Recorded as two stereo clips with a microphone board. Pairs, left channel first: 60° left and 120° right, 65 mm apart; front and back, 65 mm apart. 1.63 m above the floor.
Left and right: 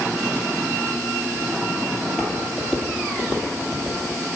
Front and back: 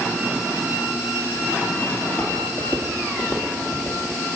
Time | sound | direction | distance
2.0 | footsteps | 40° right | 2 m